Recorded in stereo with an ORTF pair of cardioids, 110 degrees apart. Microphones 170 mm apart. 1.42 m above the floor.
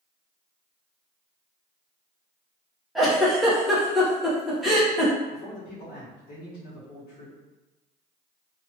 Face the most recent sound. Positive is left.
turn(degrees=65)